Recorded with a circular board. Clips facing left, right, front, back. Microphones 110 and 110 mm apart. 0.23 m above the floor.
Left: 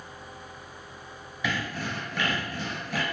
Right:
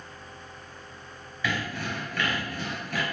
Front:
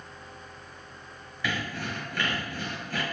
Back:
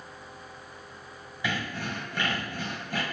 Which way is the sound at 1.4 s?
135° left.